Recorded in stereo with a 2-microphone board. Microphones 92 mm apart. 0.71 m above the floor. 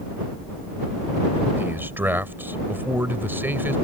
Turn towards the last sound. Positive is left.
turn(degrees=-20)  # may be behind; listen again after turning